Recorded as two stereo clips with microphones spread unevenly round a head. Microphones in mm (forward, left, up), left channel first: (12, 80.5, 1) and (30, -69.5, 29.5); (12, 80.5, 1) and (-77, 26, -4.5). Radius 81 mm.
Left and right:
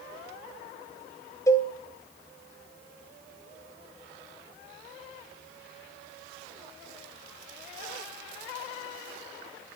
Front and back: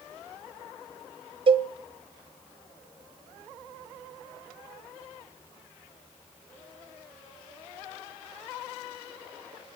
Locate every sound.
1.5 s a cowbell: 175° left, 0.6 m